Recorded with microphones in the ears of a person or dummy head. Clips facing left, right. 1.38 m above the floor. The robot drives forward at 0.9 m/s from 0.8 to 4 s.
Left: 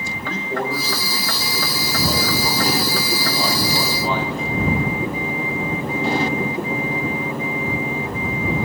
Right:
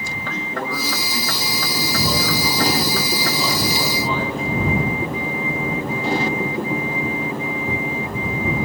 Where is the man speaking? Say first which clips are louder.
Left 3 dB; 30° left (ahead or behind), 5 m; by 4.5 s 60° left (ahead or behind), 3 m.